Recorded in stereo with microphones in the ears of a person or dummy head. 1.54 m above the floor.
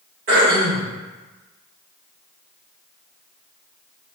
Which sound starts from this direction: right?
Throat clearing, at 0.3 s.